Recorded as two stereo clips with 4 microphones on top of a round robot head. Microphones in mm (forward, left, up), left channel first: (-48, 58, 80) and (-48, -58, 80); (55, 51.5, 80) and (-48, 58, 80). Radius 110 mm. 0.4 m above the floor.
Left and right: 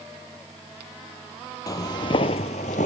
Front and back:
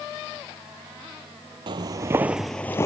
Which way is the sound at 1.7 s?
145° left.